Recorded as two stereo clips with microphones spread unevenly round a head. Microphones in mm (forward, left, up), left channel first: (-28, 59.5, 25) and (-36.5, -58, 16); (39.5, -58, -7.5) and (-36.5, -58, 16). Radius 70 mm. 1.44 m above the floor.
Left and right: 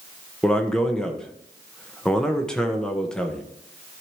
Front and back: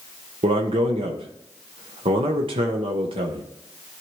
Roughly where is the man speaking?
Behind.